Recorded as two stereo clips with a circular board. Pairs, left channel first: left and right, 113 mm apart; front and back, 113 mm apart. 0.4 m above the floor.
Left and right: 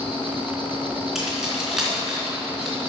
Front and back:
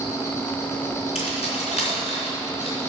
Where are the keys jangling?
5° right, 3 m.